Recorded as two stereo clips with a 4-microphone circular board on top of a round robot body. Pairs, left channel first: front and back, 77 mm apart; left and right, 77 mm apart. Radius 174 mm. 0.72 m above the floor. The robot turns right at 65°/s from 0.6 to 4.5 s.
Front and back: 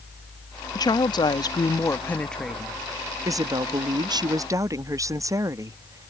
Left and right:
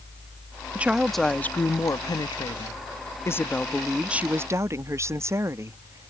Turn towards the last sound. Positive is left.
turn(degrees=-140)